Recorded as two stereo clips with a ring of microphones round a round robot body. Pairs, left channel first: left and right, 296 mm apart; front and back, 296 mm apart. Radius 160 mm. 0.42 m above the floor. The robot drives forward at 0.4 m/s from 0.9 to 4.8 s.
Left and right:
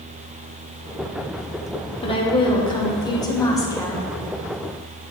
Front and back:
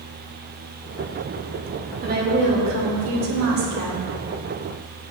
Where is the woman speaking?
145° left, 0.9 m; by 4.1 s 170° left, 1.4 m.